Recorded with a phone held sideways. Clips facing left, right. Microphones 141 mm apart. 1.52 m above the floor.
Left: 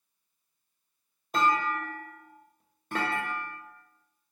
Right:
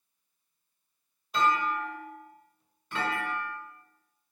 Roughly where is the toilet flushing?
No toilet flushing in this recording.